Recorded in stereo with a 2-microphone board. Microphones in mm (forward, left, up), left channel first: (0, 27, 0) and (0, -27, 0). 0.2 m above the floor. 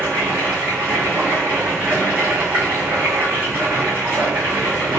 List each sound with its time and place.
0.0 s running water: 45° right (ahead or behind), 1.7 m